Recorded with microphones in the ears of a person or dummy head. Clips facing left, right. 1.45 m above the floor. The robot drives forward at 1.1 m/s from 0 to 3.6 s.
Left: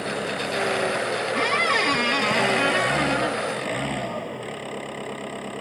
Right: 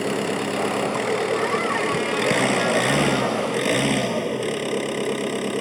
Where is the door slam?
No door slam in this recording.